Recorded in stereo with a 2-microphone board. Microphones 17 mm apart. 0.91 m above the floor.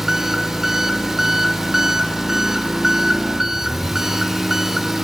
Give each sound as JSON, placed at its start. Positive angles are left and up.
{"t": 0.0, "sound": "an engine running", "side_deg": -20, "distance_m": 0.8}